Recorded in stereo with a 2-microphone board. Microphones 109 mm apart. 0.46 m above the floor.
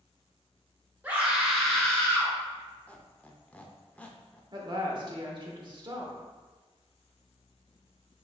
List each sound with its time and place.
1.0 s a scream: 20° right (ahead or behind), 1.7 m; by 2.3 s 20° left (ahead or behind), 1.5 m
2.9 s a squeak: 15° left (ahead or behind), 0.5 m
4.5 s a woman speaking: 45° right (ahead or behind), 0.9 m